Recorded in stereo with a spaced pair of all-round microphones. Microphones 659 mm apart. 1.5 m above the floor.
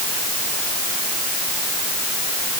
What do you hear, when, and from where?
Only background noise.